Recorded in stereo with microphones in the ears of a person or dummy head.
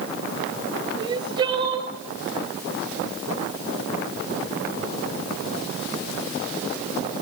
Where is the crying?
25° right (ahead or behind), 2 m.